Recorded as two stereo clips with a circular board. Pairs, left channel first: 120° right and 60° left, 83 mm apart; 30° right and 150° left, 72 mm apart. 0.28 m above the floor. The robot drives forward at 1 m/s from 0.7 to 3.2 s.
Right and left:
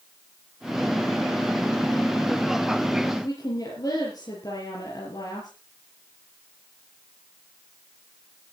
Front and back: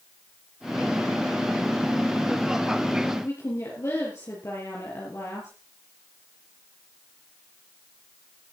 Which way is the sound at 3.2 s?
80° right.